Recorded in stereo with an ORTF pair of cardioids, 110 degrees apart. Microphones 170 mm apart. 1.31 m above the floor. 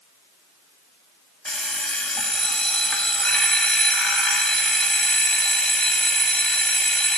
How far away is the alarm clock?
About 1.5 m.